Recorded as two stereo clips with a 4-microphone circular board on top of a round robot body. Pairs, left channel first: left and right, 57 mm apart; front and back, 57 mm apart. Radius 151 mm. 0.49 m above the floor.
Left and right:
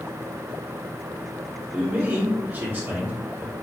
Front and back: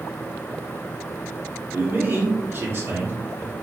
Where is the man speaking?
140° right, 1.9 m.